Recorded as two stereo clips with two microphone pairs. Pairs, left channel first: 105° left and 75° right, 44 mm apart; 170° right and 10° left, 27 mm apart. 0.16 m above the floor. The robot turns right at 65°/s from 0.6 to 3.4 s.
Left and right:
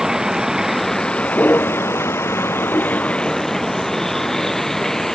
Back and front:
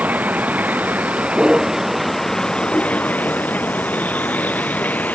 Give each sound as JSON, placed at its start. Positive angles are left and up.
{"t": 0.0, "sound": "a vehicle", "azimuth_deg": 5}